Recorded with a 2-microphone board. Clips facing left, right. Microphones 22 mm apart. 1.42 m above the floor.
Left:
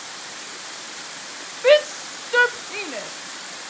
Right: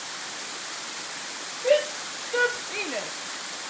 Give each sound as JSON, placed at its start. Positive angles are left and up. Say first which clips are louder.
{"t": 1.6, "sound": "a shout", "louder": "left 7 dB", "side_deg": 75, "distance_m": 0.8}